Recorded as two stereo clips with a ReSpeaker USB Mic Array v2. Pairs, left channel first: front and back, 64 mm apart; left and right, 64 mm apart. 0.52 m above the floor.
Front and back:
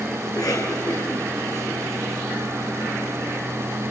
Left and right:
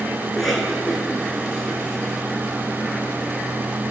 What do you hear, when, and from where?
0.2 s a cough: straight ahead, 8.5 m